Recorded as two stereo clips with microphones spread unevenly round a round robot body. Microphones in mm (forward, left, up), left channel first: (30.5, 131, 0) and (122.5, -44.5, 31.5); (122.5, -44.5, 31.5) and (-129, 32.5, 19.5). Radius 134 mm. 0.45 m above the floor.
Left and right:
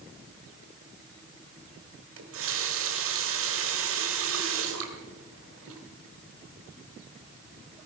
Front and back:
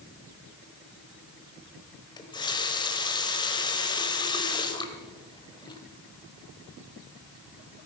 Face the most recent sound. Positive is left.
turn(degrees=-90)